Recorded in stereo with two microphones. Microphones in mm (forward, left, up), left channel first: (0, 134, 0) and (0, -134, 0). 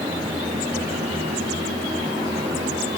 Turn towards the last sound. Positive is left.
No sound to turn to.